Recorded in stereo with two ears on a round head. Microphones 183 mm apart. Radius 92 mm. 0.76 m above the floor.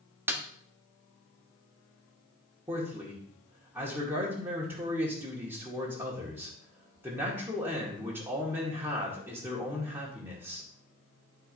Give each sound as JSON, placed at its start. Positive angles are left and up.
{"t": 0.3, "sound": "a snare drum", "side_deg": -10, "distance_m": 1.2}
{"t": 2.7, "sound": "a man speaking", "side_deg": -10, "distance_m": 2.0}